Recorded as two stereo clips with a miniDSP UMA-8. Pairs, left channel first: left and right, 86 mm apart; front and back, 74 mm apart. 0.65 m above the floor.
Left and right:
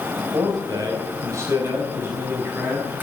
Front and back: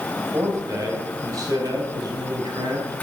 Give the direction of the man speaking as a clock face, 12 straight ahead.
4 o'clock.